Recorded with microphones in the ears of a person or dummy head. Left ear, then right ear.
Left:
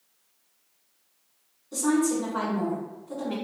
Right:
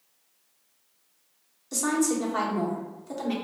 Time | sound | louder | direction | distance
1.7 | a woman speaking | left 1 dB | 70° right (ahead or behind) | 1.8 m